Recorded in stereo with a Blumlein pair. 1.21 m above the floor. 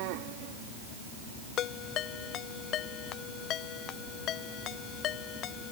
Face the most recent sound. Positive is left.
turn(degrees=35)